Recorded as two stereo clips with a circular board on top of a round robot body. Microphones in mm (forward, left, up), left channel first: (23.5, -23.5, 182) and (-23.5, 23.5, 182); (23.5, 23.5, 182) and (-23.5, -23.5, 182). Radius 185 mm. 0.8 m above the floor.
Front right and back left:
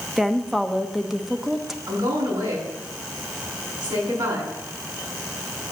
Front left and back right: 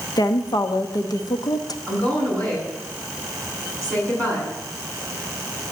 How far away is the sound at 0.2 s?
About 1.2 m.